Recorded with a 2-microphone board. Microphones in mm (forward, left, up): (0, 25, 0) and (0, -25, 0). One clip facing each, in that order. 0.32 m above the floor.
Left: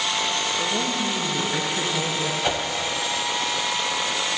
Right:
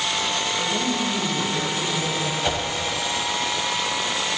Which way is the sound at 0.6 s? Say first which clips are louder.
Right 1 dB; 15° left (ahead or behind).